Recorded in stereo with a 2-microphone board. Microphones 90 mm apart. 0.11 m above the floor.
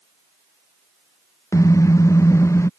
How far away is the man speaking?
I don't hear a man speaking.